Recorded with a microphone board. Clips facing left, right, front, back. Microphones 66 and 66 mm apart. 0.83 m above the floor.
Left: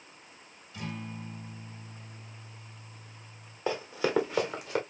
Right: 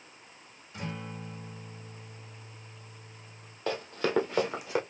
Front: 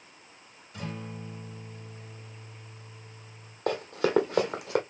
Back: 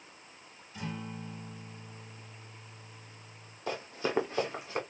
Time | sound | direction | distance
0.7 | a guitar | 30° right | 4 m
3.7 | running footsteps | 15° left | 1.8 m